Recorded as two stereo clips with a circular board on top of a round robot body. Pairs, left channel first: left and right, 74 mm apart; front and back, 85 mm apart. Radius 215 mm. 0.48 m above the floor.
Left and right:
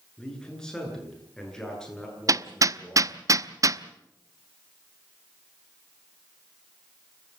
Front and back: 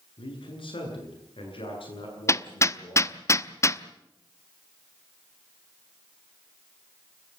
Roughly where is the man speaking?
Ahead.